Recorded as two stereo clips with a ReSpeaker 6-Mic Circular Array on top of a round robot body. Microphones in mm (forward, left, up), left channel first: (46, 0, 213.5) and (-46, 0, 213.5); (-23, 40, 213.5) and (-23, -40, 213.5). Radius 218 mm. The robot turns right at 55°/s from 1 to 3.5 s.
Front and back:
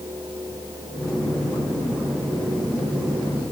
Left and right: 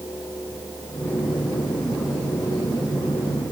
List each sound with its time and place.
Only background noise.